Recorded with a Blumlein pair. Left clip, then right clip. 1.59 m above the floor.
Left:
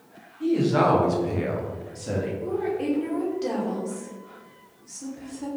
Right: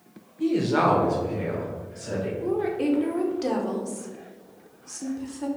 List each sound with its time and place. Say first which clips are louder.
0.4 s a woman speaking: left 1 dB; 20° right, 1.2 m; by 2.3 s 70° left, 1.6 m
2.4 s a woman speaking: right 4 dB; 15° right, 1.0 m